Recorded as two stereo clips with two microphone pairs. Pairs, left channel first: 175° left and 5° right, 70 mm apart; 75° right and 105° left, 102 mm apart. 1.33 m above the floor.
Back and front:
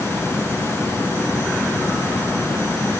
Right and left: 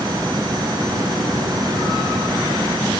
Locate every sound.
Only background noise.